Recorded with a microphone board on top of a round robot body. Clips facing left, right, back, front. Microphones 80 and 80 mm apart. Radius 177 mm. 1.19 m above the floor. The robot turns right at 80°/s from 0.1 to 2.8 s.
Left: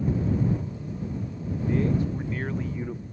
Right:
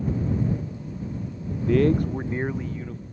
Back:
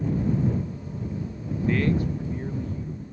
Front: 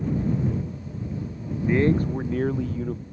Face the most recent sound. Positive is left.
turn(degrees=10)